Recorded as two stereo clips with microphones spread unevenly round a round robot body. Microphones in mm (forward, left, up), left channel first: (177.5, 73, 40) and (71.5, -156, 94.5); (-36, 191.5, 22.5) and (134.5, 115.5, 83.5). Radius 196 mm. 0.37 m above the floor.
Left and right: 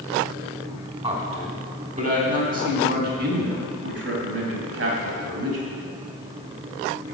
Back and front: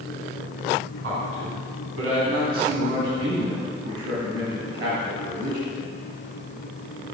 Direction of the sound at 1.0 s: 45° right.